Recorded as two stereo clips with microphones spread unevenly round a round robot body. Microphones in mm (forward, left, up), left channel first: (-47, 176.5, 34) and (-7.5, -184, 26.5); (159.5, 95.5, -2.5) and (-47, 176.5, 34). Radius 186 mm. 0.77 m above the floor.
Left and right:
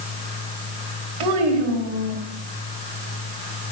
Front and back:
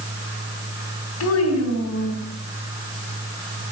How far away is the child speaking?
About 2.5 m.